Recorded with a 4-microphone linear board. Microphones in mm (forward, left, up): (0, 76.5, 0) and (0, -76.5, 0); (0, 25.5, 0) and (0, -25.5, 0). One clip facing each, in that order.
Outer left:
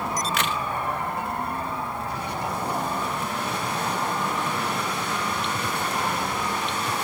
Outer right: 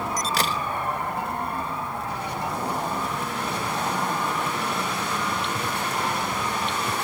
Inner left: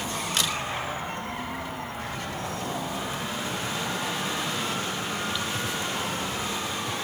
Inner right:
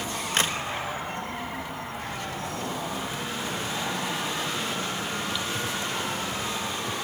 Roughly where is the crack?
Right.